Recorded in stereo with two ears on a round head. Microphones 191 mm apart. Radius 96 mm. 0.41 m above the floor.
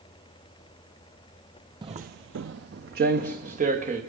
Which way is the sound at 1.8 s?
20° right (ahead or behind).